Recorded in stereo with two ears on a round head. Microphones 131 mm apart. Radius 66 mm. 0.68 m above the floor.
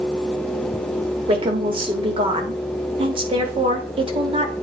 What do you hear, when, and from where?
1.3 s a woman speaking: 35° right (ahead or behind), 1.4 m